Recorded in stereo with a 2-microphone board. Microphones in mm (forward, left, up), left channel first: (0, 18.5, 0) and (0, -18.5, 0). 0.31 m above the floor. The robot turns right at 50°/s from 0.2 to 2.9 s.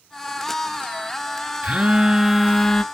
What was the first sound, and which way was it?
A phone buzzing, 40° right.